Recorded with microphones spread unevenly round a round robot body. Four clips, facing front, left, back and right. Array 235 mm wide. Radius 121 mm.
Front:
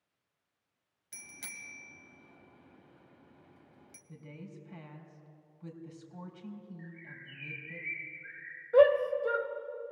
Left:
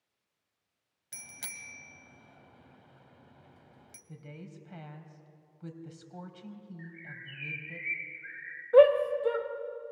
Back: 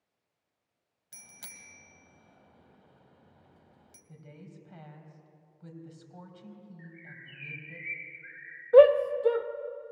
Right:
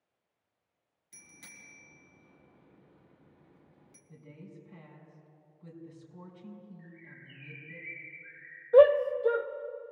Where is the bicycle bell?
80° left, 3 m.